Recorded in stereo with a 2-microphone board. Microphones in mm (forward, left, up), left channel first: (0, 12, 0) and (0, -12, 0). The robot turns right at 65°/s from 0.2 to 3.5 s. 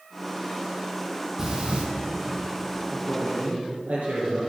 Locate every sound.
1.4 s breathing: 20° right (ahead or behind), 2.5 m; by 1.8 s 50° right (ahead or behind), 2.5 m
2.9 s a man speaking: 110° right, 3 m; by 4.4 s 70° right, 3 m